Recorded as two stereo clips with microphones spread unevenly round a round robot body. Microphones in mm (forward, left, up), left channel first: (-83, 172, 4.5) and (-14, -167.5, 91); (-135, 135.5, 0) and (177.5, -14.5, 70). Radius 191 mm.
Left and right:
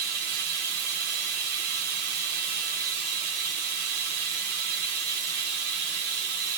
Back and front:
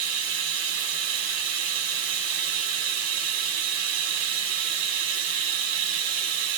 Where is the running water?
50° right, 1.7 m.